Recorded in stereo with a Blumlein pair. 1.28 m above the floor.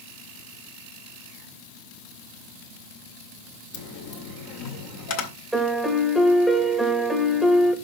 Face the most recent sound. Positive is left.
turn(degrees=0)